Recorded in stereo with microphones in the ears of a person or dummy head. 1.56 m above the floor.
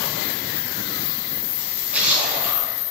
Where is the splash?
5° right (ahead or behind), 5 m.